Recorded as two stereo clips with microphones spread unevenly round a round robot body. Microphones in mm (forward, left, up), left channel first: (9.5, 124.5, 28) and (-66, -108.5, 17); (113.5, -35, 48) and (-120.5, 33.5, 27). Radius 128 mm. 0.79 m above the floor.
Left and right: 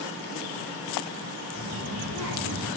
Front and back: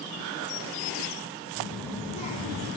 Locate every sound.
1.6 s a child speaking: 115° right, 2 m; by 2.7 s 55° right, 1.5 m